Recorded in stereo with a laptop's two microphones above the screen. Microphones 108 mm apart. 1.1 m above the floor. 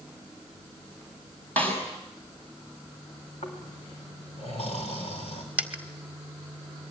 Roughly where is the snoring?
Left.